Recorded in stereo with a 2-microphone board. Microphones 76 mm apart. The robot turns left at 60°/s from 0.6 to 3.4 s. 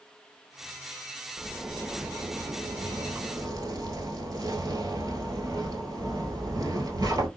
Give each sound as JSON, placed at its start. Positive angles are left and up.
{"t": 1.4, "sound": "a zipper", "azimuth_deg": -5, "distance_m": 1.0}